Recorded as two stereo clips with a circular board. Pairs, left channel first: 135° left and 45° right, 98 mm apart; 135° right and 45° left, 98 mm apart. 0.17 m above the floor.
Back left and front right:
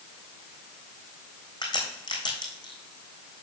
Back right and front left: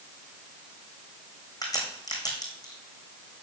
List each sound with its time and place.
1.6 s a crack: 175° left, 2.5 m